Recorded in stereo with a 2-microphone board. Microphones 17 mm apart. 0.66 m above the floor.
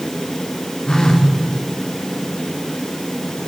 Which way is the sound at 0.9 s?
45° left (ahead or behind).